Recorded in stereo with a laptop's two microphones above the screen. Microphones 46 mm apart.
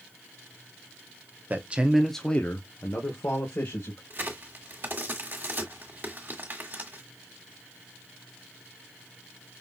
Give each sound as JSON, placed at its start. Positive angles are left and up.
{"t": 1.5, "sound": "a man speaking", "side_deg": -40, "distance_m": 0.8}
{"t": 4.1, "sound": "a crack", "side_deg": -40, "distance_m": 1.5}